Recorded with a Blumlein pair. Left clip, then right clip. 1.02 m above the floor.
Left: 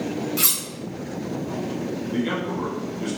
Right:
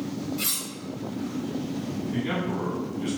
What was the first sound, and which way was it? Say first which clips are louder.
Cutlery clinking: left 5 dB; 45° left.